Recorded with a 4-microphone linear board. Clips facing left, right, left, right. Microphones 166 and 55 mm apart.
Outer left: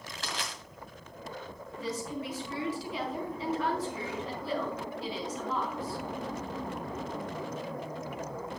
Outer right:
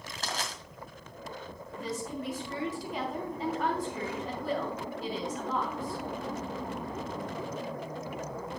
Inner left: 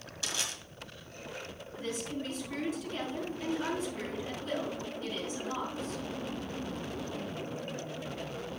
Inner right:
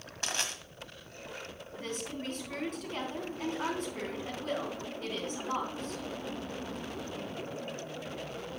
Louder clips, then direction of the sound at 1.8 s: Outer left 1 dB, inner left 2 dB; 50° right (ahead or behind).